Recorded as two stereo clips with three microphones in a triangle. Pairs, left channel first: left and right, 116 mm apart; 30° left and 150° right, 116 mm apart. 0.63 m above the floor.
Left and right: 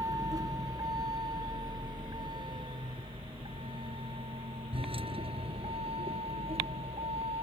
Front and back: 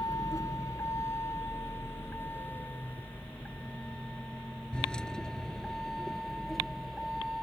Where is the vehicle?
30° right; by 7.4 s 60° right.